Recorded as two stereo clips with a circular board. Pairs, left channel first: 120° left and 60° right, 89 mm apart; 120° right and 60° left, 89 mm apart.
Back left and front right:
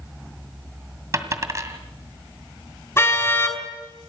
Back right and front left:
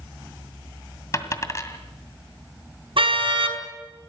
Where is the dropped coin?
90° right, 1.9 m.